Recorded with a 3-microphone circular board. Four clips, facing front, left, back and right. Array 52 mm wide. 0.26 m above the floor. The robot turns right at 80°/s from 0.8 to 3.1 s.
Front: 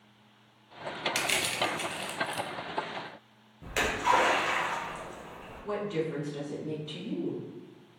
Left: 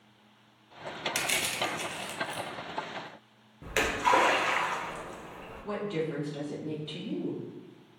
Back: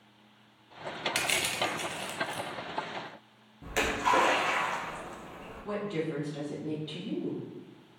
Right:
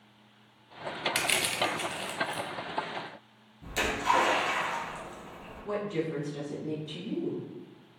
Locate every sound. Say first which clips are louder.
1.1 s crushing: right 2 dB, even; 105° right, 0.6 m; by 2.5 s straight ahead, 0.6 m
3.6 s a splash: left 2 dB, front 1 dB; 85° left, 1.4 m
5.6 s a woman speaking: right 1 dB, front 1 dB; 110° left, 1.4 m